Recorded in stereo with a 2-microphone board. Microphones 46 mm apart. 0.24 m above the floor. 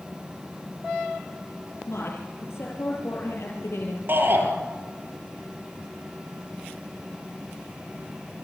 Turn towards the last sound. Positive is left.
turn(degrees=-50)  # may be behind; listen again after turning